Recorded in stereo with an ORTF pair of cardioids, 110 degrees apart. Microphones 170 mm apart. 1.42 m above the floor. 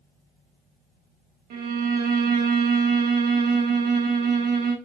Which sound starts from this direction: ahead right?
A violin, at 1.5 s.